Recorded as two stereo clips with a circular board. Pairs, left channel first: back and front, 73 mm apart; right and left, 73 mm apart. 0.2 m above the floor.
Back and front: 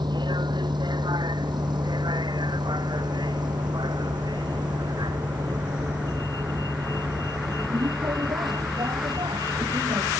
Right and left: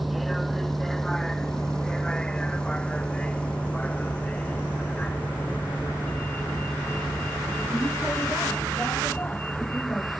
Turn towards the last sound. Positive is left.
turn(degrees=-25)